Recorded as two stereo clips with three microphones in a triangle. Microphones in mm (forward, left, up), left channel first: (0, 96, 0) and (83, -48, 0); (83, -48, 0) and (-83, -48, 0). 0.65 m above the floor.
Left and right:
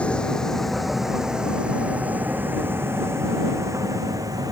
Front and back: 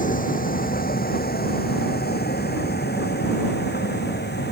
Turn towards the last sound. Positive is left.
turn(degrees=10)